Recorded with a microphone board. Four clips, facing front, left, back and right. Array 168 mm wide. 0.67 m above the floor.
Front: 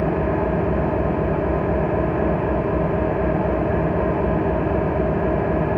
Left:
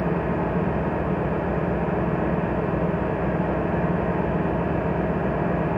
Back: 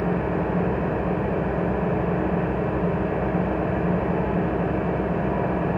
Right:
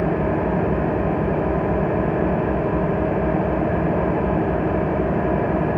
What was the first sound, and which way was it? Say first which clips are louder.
An engine running: right 4 dB, front 4 dB; 65° right.